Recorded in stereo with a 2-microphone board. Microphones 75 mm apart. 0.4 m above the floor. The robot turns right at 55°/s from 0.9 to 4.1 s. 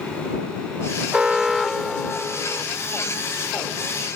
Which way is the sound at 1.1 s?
10° right (ahead or behind).